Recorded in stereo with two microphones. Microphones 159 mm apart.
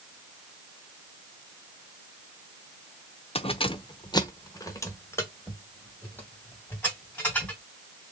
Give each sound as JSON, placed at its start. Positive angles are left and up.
{"t": 3.4, "sound": "keys jangling", "side_deg": 40, "distance_m": 0.5}